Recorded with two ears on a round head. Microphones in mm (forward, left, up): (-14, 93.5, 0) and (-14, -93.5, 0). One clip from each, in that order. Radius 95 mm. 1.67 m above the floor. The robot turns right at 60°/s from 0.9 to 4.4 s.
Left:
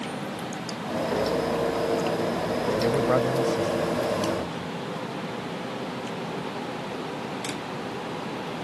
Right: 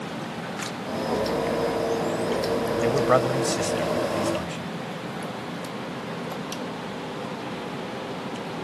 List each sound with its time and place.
2.8 s a man speaking: 155° right; by 4.7 s 60° right